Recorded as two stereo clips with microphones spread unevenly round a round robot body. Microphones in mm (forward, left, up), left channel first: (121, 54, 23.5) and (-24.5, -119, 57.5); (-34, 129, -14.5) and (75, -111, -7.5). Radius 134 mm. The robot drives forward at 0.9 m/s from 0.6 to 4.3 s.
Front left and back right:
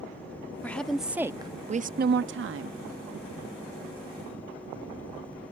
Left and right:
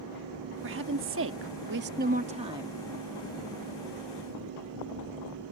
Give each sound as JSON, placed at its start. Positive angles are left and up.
{"t": 0.6, "sound": "a woman speaking", "azimuth_deg": -25}